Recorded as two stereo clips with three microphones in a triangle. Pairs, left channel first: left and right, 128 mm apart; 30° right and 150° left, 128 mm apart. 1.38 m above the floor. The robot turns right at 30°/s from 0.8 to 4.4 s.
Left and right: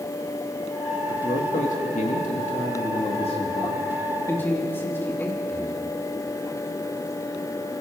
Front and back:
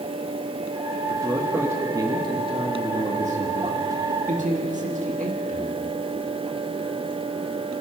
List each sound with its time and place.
1.1 s a man speaking: 65° left, 1.9 m; by 5.8 s 165° left, 1.9 m